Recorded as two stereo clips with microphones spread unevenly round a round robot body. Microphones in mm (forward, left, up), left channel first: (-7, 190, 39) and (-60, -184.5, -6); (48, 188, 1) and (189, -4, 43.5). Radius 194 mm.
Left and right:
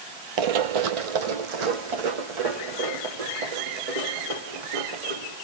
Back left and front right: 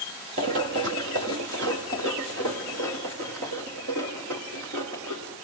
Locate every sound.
0.4 s running footsteps: 95° right, 0.8 m; by 5.3 s 100° right, 4.5 m